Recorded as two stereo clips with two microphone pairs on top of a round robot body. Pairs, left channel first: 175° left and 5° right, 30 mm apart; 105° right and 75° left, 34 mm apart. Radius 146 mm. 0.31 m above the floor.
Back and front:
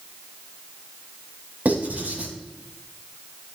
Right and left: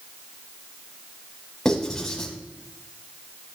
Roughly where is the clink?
I don't hear a clink.